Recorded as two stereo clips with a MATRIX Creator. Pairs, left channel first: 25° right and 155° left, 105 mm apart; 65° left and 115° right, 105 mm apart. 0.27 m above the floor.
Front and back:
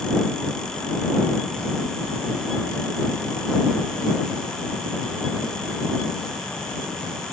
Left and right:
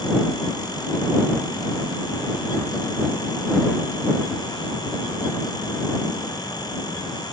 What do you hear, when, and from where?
Only background noise.